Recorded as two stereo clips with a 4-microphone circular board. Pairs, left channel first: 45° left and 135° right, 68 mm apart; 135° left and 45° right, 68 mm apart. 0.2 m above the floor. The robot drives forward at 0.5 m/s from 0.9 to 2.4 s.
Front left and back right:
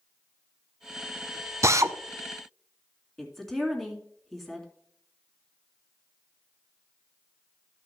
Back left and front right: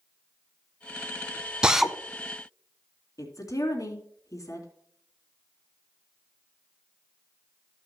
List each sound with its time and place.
1.6 s a drill: 120° right, 0.6 m; by 2.0 s 135° right, 0.6 m
3.2 s a woman speaking: 130° left, 2.5 m